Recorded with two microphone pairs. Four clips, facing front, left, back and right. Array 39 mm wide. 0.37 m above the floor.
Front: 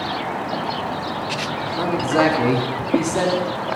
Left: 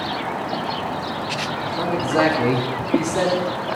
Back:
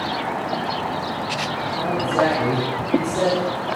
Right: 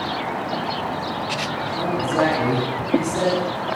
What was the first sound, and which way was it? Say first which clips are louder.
A man speaking: left 1 dB, front 2 dB; 25° left.